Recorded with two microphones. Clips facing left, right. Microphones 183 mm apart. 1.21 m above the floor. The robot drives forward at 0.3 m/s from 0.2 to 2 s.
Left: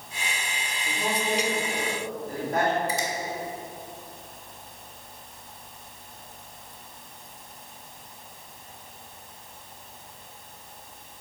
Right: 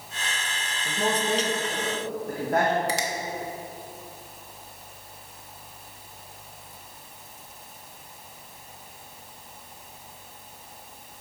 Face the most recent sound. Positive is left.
turn(degrees=-75)  # may be behind; listen again after turning